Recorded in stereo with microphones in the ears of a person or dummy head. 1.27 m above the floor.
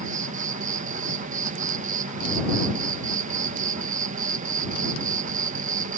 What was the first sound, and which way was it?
An insect, 35° right (ahead or behind).